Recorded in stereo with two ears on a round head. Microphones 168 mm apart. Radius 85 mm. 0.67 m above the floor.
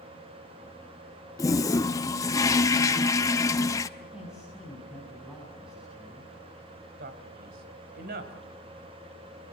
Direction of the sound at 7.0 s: 55° right (ahead or behind).